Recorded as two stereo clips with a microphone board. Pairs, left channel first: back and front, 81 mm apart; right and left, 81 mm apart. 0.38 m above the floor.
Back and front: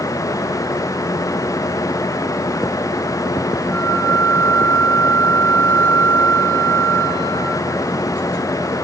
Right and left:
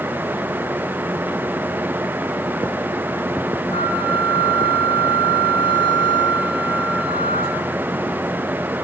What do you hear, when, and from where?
3.7 s a flute: 110° right, 9.5 m